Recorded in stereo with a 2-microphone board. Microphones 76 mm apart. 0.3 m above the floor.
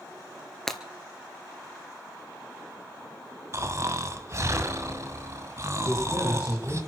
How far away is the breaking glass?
About 1.5 m.